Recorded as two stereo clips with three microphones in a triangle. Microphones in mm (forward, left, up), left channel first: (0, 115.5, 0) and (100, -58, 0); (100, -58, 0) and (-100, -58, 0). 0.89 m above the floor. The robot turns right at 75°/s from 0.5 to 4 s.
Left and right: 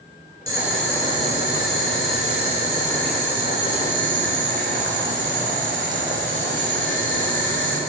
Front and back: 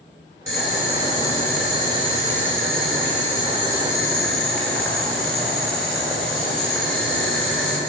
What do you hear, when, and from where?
0.5 s boiling: 15° left, 2.5 m; by 7.8 s 85° right, 2.5 m